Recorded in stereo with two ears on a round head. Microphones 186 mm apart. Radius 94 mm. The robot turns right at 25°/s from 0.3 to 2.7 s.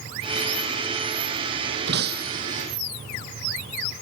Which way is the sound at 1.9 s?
55° right (ahead or behind).